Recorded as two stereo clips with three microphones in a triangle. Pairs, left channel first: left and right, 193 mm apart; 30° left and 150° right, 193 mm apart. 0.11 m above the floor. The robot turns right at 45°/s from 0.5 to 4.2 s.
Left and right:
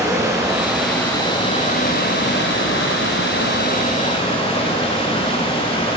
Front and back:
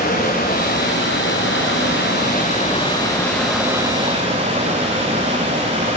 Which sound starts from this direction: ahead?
Running water, at 0.0 s.